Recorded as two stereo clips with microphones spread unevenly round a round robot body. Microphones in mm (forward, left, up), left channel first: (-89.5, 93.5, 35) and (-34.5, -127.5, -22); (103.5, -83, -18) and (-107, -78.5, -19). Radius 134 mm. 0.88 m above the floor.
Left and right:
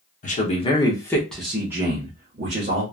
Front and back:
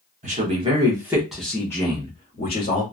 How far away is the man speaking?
About 1.0 m.